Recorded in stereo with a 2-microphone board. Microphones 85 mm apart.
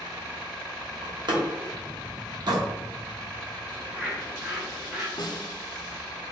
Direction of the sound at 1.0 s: 55° right (ahead or behind).